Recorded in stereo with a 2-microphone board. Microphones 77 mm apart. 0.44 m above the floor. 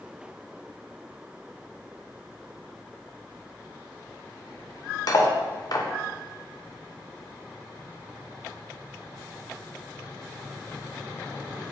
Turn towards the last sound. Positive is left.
turn(degrees=55)  # may be behind; listen again after turning